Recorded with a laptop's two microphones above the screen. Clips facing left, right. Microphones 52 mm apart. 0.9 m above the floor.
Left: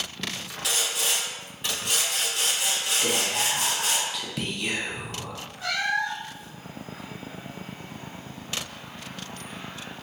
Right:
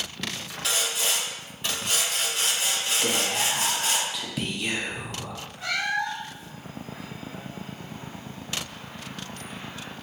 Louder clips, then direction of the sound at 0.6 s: Right 1 dB; 5° left (ahead or behind).